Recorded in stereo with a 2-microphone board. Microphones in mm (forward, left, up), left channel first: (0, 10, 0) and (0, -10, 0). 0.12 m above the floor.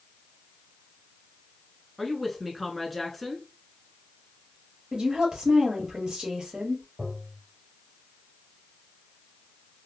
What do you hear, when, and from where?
2.0 s a woman speaking: centre (ahead or behind), 1.1 m
4.9 s a woman speaking: 50° right (ahead or behind), 2.5 m
7.0 s tapping: 70° right (ahead or behind), 2.5 m